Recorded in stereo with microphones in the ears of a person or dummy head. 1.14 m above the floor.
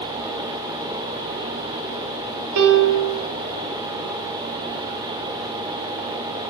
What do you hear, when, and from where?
2.6 s a piano: 80° right, 1.0 m